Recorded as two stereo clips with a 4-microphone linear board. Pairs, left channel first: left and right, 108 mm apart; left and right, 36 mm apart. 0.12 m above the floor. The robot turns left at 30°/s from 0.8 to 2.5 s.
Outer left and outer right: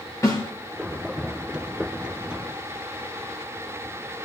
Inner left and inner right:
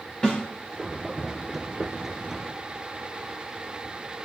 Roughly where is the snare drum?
Left.